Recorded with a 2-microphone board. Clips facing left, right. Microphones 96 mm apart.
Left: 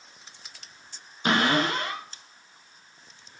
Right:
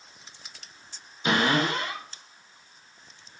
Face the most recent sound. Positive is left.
turn(degrees=50)  # may be behind; listen again after turning